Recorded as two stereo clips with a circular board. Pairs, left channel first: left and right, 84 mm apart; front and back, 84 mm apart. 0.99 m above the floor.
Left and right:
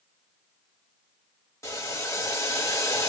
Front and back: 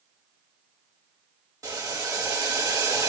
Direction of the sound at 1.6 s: 140° left.